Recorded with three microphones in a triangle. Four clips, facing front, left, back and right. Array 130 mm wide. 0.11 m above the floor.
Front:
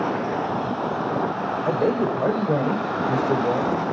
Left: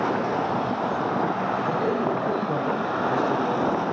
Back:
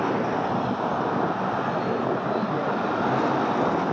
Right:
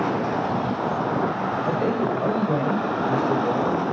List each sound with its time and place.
1.6 s a man speaking: 20° right, 6.5 m; by 3.9 s 10° right, 5 m